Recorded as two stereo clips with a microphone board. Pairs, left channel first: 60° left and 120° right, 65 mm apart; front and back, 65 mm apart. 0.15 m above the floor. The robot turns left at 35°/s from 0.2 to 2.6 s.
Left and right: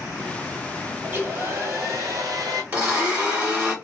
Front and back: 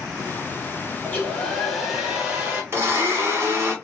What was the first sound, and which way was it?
A hair dryer, 60° right.